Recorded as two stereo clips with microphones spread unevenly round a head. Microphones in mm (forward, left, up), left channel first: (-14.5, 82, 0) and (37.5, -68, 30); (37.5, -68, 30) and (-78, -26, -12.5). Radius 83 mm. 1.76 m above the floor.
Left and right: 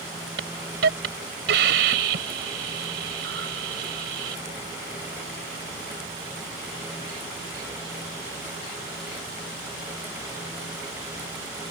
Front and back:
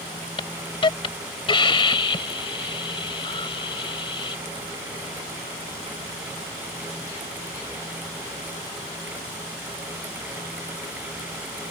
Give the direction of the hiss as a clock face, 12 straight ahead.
2 o'clock.